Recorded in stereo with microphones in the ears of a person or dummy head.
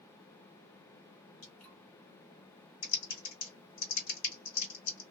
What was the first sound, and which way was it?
Dripping, 75° left (ahead or behind).